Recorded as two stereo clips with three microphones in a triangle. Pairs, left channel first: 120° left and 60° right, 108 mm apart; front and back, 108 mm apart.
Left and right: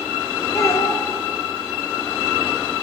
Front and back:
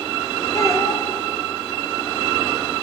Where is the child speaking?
60° left, 3 m.